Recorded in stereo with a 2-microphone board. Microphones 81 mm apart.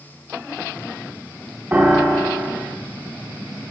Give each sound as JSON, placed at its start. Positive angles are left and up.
{"t": 1.7, "sound": "a piano", "side_deg": -25, "distance_m": 1.0}